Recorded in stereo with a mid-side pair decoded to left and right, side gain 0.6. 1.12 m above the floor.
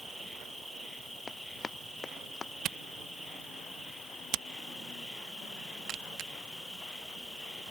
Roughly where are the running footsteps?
Ahead left.